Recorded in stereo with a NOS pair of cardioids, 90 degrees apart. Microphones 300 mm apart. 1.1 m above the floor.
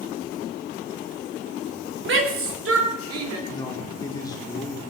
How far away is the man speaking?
About 3.5 m.